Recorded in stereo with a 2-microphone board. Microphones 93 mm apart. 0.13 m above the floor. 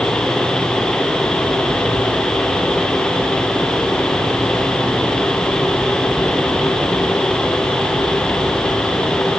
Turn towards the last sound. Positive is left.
No sound to turn to.